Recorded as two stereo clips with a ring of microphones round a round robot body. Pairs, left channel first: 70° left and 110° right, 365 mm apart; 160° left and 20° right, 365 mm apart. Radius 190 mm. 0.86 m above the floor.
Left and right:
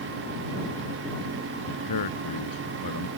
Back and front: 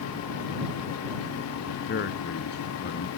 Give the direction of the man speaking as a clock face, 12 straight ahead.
9 o'clock.